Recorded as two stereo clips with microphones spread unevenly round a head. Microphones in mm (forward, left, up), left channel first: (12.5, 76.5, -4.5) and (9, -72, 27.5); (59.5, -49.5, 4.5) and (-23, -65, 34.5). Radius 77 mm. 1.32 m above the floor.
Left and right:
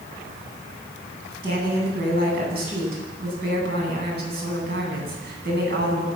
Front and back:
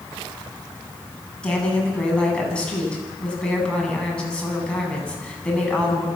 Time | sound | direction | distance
1.4 | a woman speaking | 70° right | 9.5 m